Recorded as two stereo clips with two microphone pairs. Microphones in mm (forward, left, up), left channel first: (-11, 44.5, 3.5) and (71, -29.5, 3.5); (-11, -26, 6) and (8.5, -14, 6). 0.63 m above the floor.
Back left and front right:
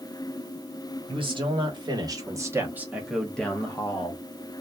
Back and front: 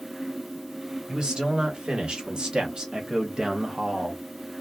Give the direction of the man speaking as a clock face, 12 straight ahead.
12 o'clock.